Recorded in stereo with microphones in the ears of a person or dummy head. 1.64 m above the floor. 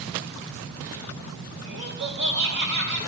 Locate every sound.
1.6 s laughter: 75° right (ahead or behind), 2 m